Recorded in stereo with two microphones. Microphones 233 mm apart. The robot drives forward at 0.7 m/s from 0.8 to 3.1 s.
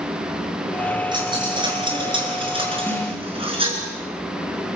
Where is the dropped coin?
20° right (ahead or behind), 6.5 m; by 3.8 s 25° right (ahead or behind), 5.5 m.